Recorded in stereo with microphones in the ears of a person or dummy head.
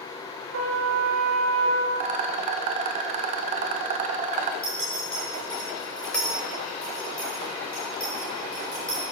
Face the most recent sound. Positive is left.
turn(degrees=5)  # may be behind; listen again after turning